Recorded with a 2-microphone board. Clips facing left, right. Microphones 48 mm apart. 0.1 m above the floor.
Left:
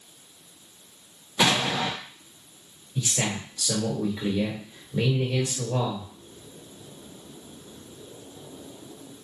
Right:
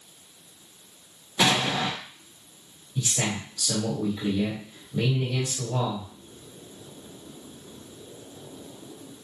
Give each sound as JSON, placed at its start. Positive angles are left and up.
{"t": 1.4, "sound": "an explosion", "side_deg": 5, "distance_m": 1.3}
{"t": 3.0, "sound": "a man speaking", "side_deg": 30, "distance_m": 1.8}